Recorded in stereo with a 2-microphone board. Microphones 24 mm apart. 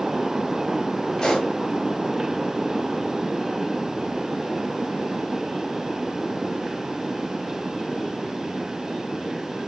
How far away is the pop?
About 3.5 m.